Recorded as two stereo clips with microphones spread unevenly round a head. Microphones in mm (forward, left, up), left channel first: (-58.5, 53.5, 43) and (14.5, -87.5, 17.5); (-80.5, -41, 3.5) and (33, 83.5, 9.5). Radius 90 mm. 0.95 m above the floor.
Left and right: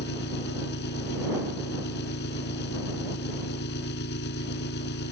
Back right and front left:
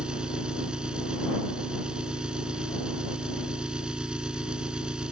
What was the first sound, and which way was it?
An engine running, 130° left.